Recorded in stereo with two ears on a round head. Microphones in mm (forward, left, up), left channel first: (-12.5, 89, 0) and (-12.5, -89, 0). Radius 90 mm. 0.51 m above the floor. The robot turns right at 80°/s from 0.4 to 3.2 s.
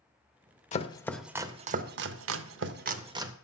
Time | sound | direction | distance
0.7 | chopping | 40° left (ahead or behind) | 0.7 m